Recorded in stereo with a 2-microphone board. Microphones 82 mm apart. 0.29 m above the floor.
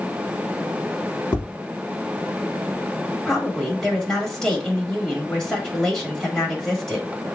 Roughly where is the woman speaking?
Centre.